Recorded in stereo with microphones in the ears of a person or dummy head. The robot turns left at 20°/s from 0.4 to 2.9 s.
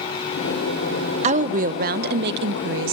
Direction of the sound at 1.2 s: 35° right.